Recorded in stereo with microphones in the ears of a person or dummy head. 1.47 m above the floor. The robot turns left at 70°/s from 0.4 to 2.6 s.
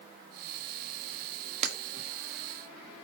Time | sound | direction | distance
1.6 | breaking glass | 50° right (ahead or behind) | 1.6 m